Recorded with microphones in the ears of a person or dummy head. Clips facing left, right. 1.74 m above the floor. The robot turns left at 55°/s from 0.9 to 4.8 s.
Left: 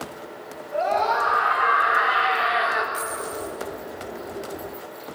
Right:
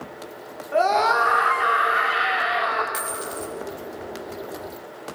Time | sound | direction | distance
0.7 | a scream | 85° right | 4.5 m
2.9 | a dropped coin | 30° right | 5.5 m